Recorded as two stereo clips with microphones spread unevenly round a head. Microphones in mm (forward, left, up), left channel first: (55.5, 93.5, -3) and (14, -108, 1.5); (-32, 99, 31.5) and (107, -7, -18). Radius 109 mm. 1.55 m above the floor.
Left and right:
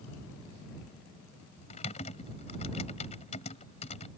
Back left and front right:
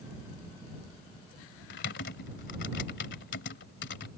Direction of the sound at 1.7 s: 140° left.